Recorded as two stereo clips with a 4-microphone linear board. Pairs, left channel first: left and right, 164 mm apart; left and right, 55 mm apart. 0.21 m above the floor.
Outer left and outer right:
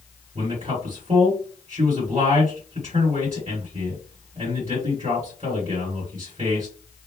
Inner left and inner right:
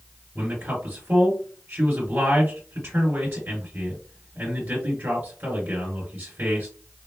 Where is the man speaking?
45° right (ahead or behind), 2 m.